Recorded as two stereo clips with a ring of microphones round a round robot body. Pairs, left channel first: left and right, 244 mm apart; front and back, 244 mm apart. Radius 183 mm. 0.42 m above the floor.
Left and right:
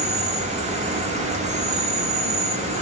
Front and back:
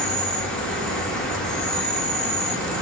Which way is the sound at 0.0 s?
85° right.